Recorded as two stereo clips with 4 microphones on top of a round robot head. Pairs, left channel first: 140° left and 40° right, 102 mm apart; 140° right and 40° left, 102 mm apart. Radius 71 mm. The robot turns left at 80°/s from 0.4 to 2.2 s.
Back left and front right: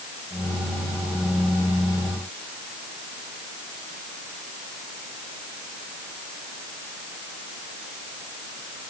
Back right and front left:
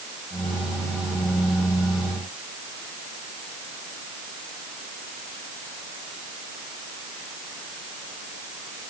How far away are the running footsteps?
No running footsteps in this recording.